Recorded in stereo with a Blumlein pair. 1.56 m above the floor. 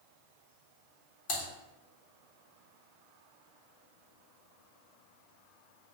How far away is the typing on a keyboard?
About 0.7 m.